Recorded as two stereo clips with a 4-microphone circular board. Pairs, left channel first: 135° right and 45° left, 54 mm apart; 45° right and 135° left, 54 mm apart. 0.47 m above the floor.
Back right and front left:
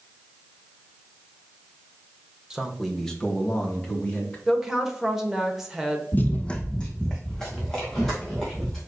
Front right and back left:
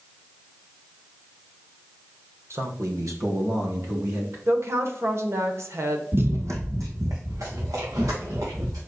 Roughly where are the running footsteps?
Behind.